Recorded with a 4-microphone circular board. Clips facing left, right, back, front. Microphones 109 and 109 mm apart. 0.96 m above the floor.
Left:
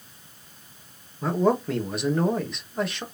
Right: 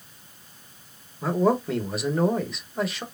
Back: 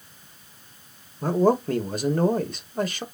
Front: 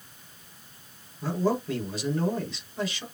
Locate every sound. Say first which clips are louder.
1.2 s a man speaking: even, back 6 dB; straight behind, 1.3 m